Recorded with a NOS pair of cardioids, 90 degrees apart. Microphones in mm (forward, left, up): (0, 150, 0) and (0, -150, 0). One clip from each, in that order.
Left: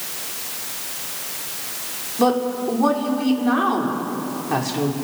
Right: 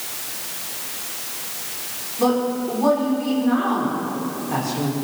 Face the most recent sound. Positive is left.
turn(degrees=50)